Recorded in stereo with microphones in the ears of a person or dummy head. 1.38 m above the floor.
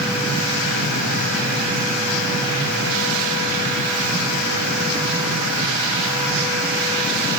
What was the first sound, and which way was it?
Only background noise.